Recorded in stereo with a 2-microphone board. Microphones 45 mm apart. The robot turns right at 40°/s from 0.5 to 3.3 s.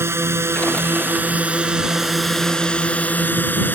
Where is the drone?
70° right; by 3.8 s 45° left.